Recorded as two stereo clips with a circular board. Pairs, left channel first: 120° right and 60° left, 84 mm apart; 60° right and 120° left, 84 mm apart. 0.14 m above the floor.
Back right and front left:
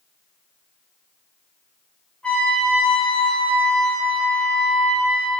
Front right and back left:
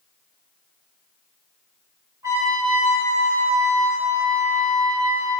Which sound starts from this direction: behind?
A trumpet, at 2.2 s.